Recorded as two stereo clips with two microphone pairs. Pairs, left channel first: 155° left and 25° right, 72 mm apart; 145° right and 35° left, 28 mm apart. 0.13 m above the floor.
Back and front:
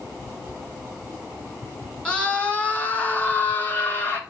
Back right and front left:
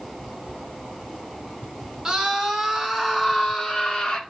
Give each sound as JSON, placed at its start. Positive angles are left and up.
{"t": 2.0, "sound": "a scream", "azimuth_deg": 90, "distance_m": 1.6}